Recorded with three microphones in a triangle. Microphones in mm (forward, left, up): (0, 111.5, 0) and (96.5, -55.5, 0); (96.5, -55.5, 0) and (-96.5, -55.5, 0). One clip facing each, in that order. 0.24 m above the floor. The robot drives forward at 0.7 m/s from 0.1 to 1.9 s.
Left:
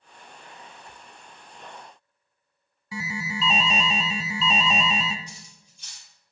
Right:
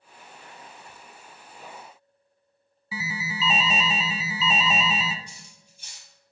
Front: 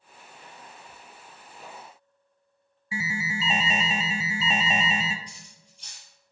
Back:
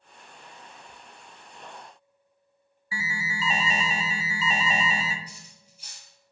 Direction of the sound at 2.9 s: 20° left.